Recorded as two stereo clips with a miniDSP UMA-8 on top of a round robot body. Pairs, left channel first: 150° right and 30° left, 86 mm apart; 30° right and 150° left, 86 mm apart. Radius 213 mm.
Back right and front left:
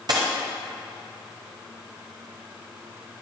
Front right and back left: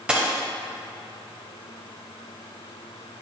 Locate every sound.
0.1 s a dropped coin: 70° left, 0.7 m